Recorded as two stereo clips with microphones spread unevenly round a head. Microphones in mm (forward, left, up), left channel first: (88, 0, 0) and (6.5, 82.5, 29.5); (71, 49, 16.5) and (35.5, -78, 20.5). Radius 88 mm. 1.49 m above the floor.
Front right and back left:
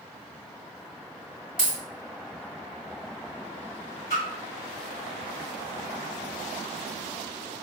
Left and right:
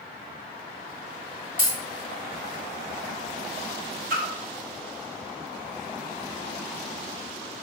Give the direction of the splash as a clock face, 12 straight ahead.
3 o'clock.